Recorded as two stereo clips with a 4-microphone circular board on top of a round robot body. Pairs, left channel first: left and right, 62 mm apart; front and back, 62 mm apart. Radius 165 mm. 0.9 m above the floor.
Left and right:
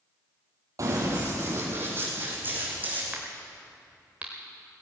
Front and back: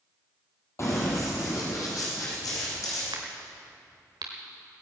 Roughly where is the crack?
Behind.